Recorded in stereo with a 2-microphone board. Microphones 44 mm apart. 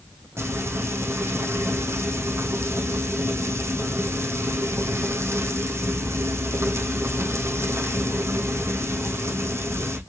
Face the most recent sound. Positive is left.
turn(degrees=-80)